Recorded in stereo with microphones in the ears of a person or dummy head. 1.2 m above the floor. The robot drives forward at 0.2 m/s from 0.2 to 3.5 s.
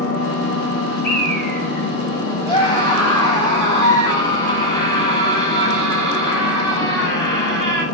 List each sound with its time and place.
0.0 s an engine running: 70° left (ahead or behind), 1.4 m; by 7.9 s 50° left (ahead or behind), 1.7 m
1.0 s a bird: 55° left (ahead or behind), 3.5 m; by 3.5 s 60° left (ahead or behind), 3 m
2.5 s a scream: 25° left (ahead or behind), 0.7 m; by 7.8 s 20° left (ahead or behind), 0.9 m